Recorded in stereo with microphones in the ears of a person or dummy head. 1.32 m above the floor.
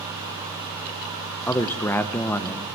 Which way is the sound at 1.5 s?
15° left (ahead or behind).